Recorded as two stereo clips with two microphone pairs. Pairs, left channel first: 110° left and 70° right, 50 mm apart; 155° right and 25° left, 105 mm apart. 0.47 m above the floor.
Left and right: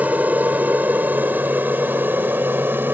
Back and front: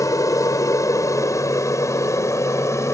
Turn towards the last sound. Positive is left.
turn(degrees=-100)